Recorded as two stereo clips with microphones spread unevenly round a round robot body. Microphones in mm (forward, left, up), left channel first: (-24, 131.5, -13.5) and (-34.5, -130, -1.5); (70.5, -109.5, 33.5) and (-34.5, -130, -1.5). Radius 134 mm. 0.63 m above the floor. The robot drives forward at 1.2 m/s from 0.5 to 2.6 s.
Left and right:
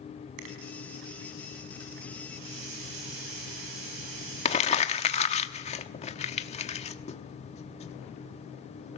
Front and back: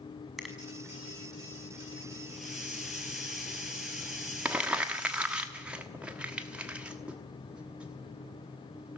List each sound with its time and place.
0.4 s a finger snap: 80° right, 5.5 m; by 0.6 s 85° right, 5.5 m
2.3 s a hiss: 80° right, 8 m
4.5 s crumpling: 140° left, 1.1 m